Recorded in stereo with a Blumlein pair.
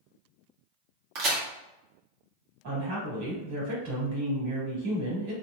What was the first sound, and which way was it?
A crack, 40° right.